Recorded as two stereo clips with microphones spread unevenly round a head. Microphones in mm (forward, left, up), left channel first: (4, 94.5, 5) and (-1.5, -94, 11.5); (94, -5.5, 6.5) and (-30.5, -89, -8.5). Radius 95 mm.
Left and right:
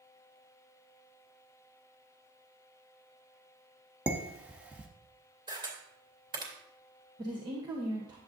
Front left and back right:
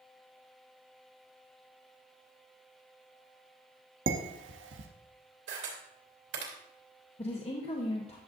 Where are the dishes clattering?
175° right, 0.8 m.